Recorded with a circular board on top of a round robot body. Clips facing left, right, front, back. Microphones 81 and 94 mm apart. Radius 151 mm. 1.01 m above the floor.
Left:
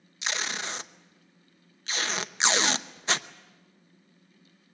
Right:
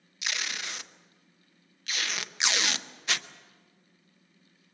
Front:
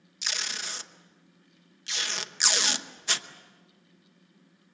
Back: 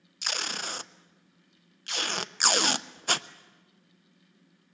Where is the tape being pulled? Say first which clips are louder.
Left 3 dB, back 3 dB; 145° left, 0.7 m.